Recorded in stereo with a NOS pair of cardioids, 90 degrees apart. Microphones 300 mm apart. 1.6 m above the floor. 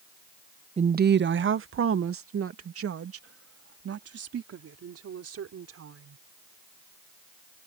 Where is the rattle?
I don't hear a rattle.